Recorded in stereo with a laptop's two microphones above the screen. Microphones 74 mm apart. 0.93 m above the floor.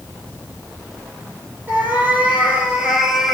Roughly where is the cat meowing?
Right.